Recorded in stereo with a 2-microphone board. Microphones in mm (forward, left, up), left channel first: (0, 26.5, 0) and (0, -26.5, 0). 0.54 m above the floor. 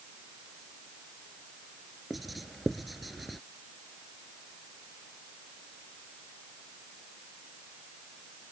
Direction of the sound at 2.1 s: Centre (ahead or behind).